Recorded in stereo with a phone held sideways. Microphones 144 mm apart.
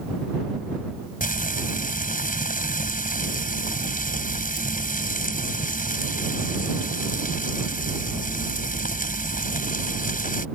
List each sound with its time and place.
1.2 s frying: 70° left (ahead or behind)